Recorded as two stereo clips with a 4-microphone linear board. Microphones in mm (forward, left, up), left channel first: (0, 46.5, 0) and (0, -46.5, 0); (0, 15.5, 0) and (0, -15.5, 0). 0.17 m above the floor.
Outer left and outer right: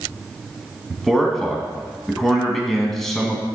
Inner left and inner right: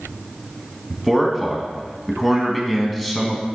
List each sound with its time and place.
0.9 s a man speaking: 5° left (ahead or behind), 1.1 m